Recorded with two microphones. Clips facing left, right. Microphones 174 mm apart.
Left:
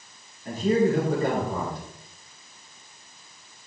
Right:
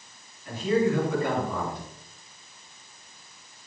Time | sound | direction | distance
0.5 | a man speaking | 45° left (ahead or behind) | 5 m